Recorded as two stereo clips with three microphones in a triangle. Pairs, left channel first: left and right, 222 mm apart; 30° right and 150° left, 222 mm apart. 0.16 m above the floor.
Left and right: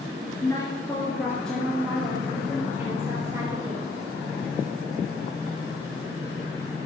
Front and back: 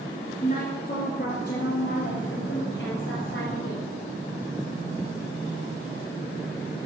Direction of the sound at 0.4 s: 20° left.